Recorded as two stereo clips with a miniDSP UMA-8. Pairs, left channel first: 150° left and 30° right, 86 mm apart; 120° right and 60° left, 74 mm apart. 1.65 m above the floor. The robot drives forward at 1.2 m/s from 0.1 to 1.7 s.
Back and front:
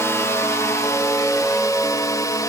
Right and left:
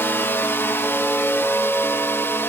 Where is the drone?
165° right; by 2.5 s 170° right.